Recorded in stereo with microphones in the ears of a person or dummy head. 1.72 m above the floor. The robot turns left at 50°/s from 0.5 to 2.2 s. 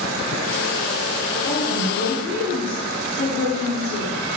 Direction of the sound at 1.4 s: 170° left.